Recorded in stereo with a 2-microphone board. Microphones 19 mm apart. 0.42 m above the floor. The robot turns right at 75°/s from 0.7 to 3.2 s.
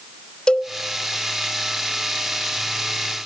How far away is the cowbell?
About 0.6 m.